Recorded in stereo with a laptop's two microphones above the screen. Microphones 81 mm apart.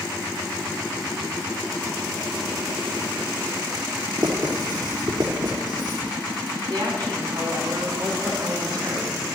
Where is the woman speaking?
55° right (ahead or behind), 3.5 m.